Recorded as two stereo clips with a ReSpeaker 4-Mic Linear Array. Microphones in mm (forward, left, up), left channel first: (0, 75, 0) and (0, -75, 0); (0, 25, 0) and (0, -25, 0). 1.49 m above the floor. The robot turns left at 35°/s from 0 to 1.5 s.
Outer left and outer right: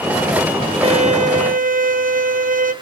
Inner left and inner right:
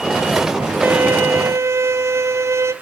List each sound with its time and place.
0.8 s a violin: 45° right (ahead or behind), 0.7 m; by 2.7 s 65° right (ahead or behind), 0.7 m